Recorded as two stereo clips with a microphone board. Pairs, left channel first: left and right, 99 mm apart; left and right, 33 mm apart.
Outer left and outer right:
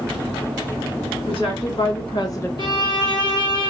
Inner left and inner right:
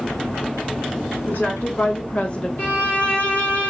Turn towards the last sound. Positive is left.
turn(degrees=50)  # may be behind; listen again after turning